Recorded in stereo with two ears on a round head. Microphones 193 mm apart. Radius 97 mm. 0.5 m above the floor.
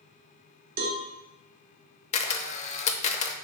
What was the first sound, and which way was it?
A cowbell, 40° right (ahead or behind).